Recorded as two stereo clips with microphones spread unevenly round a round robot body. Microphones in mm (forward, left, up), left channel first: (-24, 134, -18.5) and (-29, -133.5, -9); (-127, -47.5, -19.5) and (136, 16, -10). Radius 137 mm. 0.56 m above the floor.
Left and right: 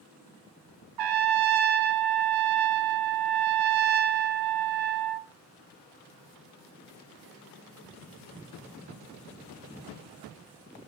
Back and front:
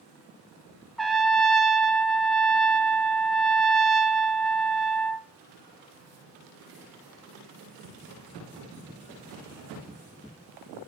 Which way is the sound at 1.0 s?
80° right.